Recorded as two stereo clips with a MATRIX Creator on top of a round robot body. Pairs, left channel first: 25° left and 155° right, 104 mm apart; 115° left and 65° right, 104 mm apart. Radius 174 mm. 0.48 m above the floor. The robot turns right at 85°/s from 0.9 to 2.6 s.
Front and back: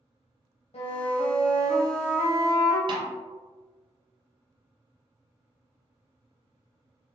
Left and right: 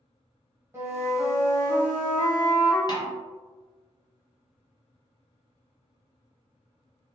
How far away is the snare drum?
About 0.6 m.